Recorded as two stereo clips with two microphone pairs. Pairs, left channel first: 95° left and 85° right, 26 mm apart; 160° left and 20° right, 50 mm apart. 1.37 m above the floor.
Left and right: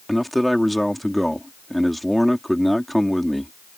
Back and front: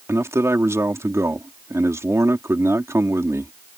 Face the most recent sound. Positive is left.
turn(degrees=10)